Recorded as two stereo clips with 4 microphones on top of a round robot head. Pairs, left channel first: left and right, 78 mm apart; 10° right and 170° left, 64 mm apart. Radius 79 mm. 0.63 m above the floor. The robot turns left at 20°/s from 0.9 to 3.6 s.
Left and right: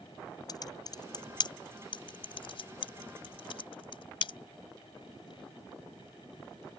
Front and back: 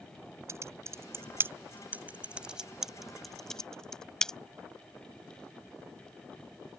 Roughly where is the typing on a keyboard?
Behind left.